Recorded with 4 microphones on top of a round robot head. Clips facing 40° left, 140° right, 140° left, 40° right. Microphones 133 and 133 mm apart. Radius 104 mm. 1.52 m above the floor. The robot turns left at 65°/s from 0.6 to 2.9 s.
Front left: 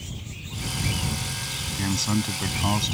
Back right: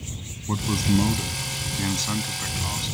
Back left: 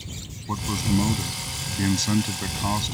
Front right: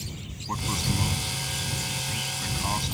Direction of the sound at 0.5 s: 145° right.